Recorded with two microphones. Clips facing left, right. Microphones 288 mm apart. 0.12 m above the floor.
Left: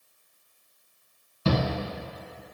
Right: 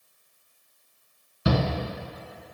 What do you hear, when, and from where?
1.4 s a shout: 15° right (ahead or behind), 1.3 m